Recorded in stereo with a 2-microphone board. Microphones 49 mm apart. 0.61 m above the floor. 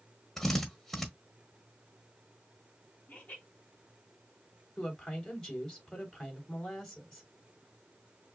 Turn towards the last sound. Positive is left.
turn(degrees=15)  # may be behind; listen again after turning